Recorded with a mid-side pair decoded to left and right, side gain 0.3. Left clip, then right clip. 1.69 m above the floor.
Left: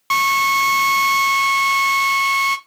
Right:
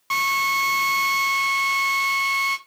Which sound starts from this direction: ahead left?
A drill, at 0.1 s.